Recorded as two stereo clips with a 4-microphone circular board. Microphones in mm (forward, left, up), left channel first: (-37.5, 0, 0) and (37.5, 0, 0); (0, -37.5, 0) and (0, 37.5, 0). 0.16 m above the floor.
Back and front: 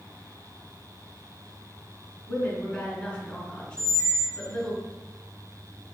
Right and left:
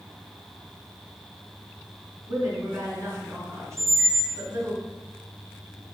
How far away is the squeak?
About 0.9 m.